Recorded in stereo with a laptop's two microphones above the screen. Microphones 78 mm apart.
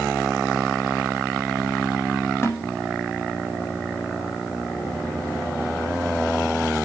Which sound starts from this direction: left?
A snare drum, at 2.4 s.